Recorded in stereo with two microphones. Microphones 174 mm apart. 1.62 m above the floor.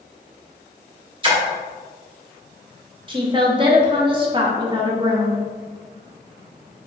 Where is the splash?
25° right (ahead or behind), 1.2 m.